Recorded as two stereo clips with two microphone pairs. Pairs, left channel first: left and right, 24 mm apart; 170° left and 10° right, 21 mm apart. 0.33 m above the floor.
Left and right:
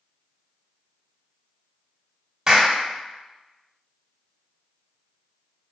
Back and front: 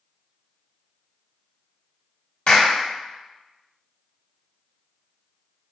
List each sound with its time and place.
2.5 s a clap: 150° right, 1.2 m